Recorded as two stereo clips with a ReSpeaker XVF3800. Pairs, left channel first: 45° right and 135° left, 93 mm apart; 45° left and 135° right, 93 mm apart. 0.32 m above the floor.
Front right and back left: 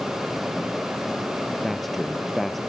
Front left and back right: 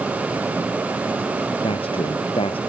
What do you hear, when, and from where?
1.6 s a man speaking: 45° left